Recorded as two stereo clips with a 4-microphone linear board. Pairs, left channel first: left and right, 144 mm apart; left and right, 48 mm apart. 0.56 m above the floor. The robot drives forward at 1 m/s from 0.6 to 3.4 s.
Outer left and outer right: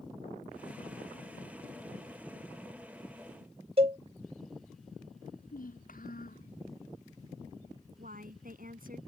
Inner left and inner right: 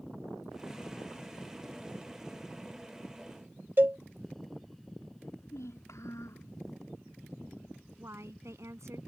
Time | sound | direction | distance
3.8 | a cowbell | 45° right (ahead or behind) | ?
5.2 | a child speaking | 80° left | ?
8.0 | a woman speaking | 80° right | ?